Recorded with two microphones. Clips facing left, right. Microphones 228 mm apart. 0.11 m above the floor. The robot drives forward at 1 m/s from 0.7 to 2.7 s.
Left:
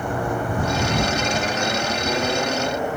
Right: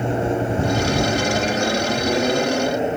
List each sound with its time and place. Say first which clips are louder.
0.0 s an aircraft: right 4 dB; 25° right (ahead or behind); by 3.0 s 20° right (ahead or behind)